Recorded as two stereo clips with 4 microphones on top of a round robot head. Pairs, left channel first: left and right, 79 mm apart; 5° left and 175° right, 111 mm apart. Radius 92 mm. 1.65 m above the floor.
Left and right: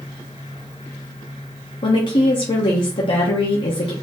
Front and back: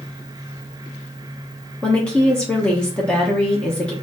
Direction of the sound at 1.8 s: 85° left.